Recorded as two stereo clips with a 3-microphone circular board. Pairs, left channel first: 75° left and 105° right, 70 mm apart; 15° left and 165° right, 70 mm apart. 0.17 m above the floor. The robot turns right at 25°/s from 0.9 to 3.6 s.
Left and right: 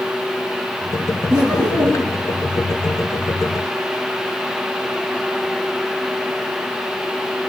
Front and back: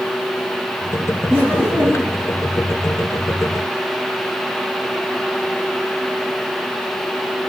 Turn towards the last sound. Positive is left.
turn(degrees=-50)